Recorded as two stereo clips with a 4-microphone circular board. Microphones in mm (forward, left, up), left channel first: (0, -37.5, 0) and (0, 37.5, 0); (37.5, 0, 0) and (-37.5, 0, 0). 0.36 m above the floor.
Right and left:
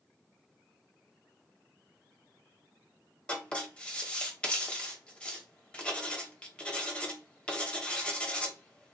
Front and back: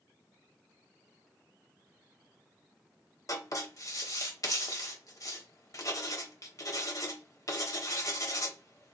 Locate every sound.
3.3 s writing: 20° right, 1.0 m